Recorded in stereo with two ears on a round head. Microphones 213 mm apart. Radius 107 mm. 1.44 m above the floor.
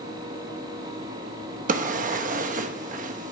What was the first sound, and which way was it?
A drawer, 35° right (ahead or behind).